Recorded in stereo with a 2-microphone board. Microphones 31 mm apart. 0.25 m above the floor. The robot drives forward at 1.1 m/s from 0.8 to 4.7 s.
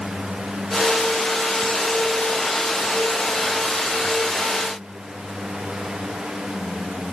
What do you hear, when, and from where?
Only background noise.